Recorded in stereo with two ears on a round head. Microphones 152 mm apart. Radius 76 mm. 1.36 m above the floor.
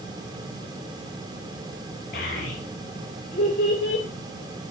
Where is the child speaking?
60° left (ahead or behind), 3.5 m.